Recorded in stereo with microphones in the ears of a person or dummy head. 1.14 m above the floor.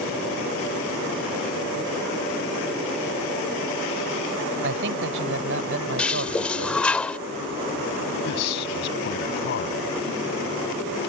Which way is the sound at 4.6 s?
70° right (ahead or behind).